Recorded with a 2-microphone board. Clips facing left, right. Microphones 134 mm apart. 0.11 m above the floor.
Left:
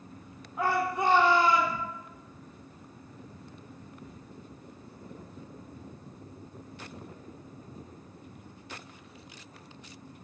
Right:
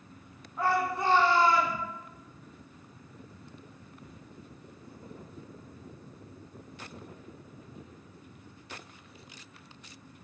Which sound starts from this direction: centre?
A shout, at 0.6 s.